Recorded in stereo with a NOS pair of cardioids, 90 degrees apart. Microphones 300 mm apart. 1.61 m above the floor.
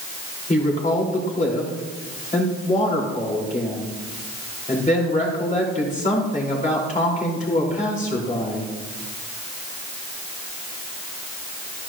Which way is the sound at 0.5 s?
25° left.